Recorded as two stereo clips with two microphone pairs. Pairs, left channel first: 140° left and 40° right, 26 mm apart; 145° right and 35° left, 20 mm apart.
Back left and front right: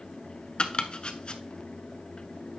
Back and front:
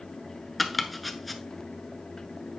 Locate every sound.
0.6 s chopping: 130° left, 1.0 m